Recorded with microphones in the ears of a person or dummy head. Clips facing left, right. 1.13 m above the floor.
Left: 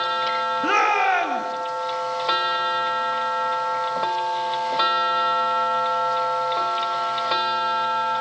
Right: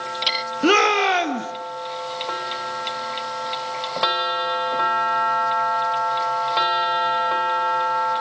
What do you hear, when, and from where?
0.6 s a shout: 50° right (ahead or behind), 1.7 m